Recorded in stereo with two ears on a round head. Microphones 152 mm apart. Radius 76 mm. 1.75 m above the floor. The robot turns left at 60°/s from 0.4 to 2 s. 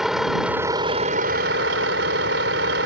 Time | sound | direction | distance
0.0 | a vehicle | 5° right | ?